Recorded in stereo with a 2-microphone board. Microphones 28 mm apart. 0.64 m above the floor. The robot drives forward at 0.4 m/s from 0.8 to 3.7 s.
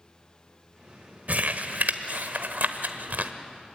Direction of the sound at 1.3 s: 65° right (ahead or behind).